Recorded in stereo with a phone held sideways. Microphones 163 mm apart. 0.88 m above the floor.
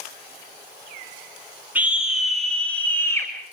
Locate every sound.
1.8 s a scream: 10° right (ahead or behind), 4 m; by 3.3 s 15° left (ahead or behind), 5 m